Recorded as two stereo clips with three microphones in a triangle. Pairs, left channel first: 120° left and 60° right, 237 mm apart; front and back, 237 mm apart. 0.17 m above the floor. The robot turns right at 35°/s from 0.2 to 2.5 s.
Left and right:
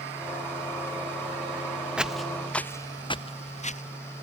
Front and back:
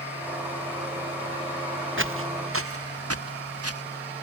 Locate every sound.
2.0 s footsteps: 145° right; by 3.8 s straight behind